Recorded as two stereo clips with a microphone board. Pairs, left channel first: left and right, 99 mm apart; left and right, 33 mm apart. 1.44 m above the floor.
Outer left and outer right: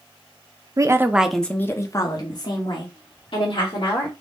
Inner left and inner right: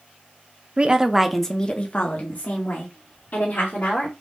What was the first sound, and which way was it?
A woman speaking, 35° right (ahead or behind).